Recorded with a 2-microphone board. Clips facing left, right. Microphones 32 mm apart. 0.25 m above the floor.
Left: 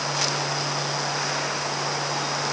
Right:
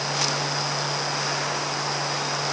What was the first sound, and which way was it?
Only background noise.